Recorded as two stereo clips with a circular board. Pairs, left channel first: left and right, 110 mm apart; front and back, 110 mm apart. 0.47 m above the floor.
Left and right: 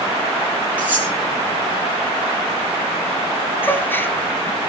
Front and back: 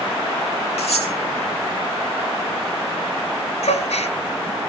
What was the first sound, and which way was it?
Cutlery clinking, 15° right.